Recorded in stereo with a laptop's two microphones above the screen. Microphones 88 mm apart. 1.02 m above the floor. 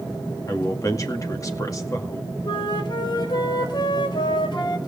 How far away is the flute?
About 4.5 m.